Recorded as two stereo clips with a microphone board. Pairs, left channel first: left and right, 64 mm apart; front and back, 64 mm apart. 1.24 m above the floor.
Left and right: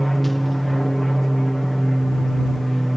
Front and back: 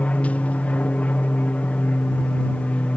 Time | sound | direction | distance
0.0 | an aircraft | 5° left | ?